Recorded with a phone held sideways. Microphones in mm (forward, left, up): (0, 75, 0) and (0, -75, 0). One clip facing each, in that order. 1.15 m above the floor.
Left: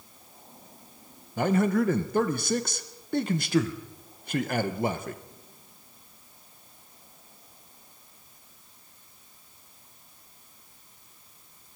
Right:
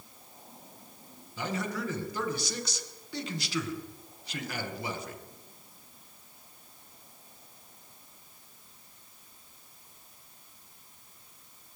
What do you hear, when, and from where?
1.4 s a man speaking: 55° left (ahead or behind), 1.1 m